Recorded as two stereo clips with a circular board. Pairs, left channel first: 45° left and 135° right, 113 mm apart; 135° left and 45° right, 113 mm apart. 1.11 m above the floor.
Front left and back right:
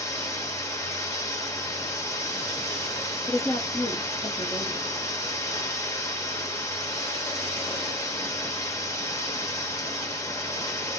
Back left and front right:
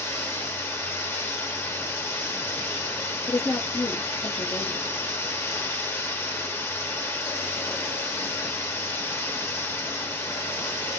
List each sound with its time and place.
0.0 s running water: 85° left, 0.9 m
3.3 s a woman speaking: 95° left, 0.8 m